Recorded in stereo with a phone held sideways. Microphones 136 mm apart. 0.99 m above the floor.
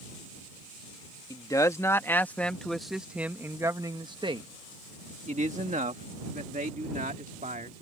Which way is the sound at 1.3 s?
25° left (ahead or behind).